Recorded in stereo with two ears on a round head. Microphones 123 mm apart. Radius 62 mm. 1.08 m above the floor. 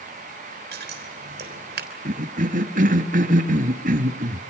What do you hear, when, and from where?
0.7 s scissors: 80° right, 3.5 m
2.0 s a cough: 65° right (ahead or behind), 2.0 m